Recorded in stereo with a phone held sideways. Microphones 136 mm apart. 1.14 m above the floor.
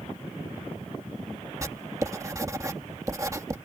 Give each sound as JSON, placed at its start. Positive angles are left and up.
{"t": 1.6, "sound": "writing", "side_deg": -25}